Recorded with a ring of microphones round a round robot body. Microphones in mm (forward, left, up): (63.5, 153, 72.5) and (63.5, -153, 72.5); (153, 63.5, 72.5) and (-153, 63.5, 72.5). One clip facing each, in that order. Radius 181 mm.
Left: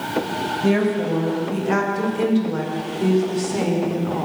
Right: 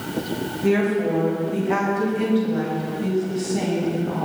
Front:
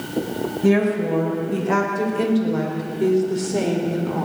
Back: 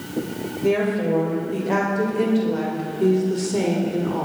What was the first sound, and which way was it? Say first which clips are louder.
A woman speaking: even, front 2 dB; 60° left.